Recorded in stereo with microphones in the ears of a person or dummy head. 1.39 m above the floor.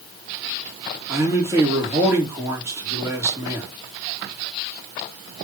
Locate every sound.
1.1 s a man speaking: 15° right (ahead or behind), 4 m